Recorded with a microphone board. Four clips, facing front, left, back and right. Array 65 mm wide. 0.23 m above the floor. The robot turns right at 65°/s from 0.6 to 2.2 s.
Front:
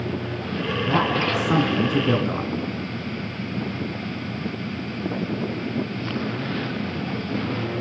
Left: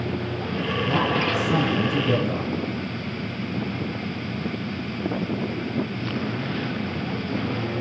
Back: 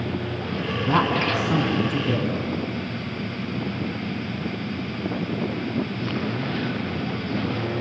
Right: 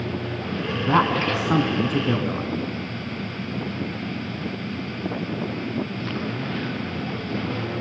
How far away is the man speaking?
About 3 m.